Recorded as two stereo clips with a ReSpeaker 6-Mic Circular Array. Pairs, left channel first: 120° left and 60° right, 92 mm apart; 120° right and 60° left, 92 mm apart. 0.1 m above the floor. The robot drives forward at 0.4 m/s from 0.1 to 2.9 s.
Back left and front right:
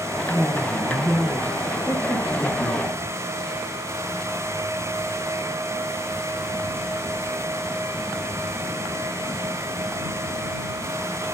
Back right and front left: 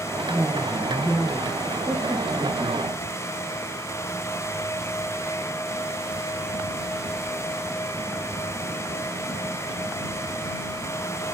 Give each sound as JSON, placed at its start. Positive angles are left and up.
{"t": 0.3, "sound": "a woman speaking", "azimuth_deg": 85, "distance_m": 1.5}